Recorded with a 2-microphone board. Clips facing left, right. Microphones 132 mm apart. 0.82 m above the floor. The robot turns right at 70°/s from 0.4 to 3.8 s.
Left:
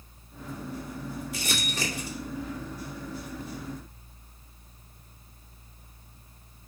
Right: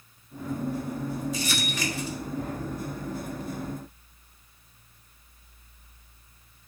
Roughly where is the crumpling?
Left.